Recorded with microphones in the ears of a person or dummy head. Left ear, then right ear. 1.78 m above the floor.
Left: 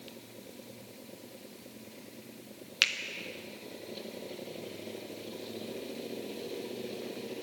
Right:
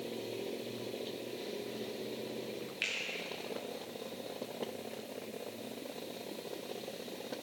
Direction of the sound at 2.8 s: 45° left (ahead or behind).